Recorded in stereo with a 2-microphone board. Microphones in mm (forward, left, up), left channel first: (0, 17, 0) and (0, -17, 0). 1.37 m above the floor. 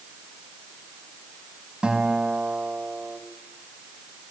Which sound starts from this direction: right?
A guitar, at 1.8 s.